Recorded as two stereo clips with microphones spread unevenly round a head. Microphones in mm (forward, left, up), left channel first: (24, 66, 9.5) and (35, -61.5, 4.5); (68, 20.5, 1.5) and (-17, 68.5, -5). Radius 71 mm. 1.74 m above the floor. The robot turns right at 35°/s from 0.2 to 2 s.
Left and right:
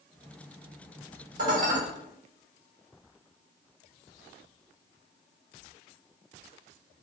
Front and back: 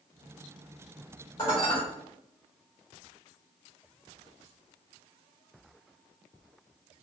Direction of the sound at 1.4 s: 90° right.